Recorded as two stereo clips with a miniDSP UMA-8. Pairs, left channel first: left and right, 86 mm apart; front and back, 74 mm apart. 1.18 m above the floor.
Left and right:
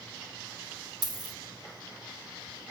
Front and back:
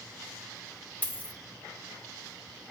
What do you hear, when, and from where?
1.0 s a dropped coin: 60° right, 0.9 m